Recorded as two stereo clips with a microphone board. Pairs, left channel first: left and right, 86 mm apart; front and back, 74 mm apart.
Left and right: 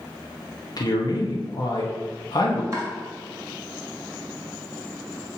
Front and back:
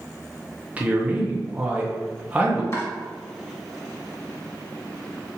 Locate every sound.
0.8 s a man speaking: 110° left, 0.7 m
2.7 s chopping: 45° right, 1.5 m